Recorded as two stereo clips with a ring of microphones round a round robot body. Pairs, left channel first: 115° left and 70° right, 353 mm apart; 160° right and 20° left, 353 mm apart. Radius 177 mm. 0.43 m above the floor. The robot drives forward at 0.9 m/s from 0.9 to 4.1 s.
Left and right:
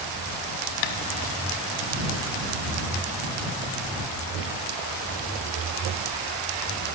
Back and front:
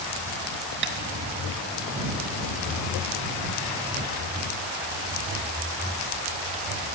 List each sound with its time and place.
0.8 s tapping: 85° left, 0.9 m